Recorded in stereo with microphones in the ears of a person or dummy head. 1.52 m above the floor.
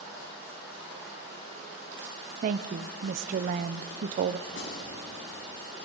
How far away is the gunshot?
About 4.5 m.